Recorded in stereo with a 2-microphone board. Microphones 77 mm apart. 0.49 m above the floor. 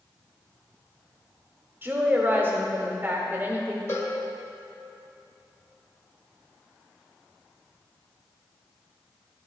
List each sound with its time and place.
1.8 s a woman speaking: 25° right (ahead or behind), 1.0 m
3.9 s a cowbell: 35° left (ahead or behind), 1.0 m